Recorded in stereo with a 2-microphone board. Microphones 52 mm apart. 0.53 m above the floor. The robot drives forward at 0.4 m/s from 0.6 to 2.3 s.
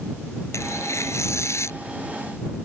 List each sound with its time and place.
0.5 s tearing paper: 70° left (ahead or behind); by 1.8 s 65° left (ahead or behind)